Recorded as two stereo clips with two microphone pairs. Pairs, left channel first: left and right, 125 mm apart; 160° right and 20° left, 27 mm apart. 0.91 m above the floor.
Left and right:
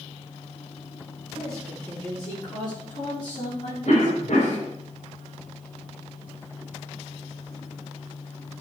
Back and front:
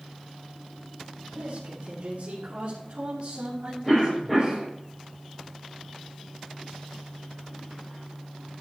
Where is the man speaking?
10° left, 3 m; by 4.6 s 75° left, 3.5 m.